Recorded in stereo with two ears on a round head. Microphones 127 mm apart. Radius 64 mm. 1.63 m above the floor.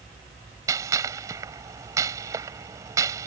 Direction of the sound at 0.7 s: 25° right (ahead or behind).